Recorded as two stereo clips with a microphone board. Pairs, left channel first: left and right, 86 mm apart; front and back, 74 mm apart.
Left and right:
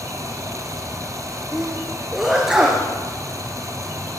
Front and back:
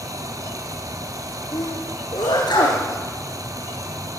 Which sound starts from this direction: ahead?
A sneeze, at 1.5 s.